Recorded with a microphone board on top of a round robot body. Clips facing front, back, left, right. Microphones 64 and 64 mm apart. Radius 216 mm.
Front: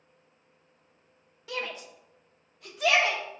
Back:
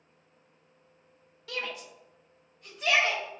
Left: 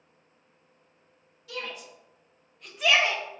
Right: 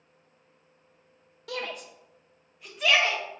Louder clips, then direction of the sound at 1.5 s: Front 1 dB, right 3 dB; 70° right.